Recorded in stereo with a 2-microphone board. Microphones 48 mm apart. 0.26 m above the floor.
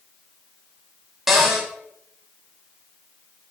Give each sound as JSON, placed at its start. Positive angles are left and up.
{"t": 1.3, "sound": "a cupboard door", "side_deg": -10, "distance_m": 0.6}